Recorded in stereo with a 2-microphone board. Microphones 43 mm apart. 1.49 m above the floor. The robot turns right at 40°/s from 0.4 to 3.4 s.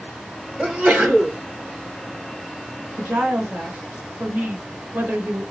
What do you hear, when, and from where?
0.6 s a sneeze: 145° right, 1.8 m; by 1.4 s 115° right, 1.8 m
3.0 s a woman speaking: 60° right (ahead or behind), 1.4 m; by 5.4 s 40° right (ahead or behind), 1.4 m